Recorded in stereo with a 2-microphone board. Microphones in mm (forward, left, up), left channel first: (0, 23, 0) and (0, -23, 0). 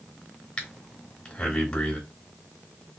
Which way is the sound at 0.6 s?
25° left (ahead or behind).